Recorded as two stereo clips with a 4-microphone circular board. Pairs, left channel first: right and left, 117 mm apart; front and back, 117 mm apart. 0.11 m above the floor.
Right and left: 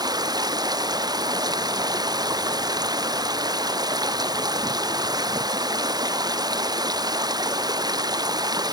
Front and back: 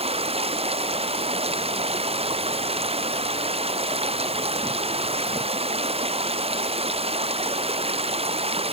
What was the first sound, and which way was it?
Running water, 145° left.